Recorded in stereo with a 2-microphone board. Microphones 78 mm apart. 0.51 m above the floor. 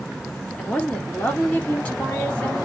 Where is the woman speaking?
20° left (ahead or behind), 1.2 m.